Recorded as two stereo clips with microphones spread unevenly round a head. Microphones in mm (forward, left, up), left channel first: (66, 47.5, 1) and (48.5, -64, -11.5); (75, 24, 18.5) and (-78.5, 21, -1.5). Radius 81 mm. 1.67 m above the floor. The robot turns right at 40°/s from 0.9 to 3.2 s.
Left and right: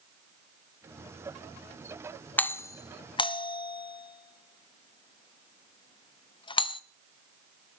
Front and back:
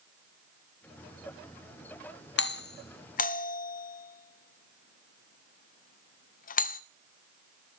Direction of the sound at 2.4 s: 5° left.